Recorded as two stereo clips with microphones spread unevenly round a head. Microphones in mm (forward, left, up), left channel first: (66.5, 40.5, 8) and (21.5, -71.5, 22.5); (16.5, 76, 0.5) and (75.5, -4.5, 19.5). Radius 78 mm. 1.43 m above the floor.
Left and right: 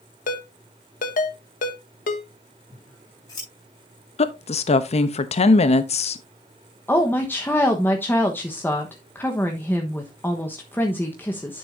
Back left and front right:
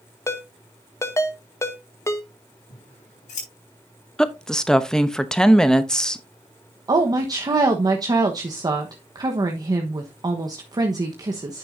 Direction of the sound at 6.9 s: 5° right.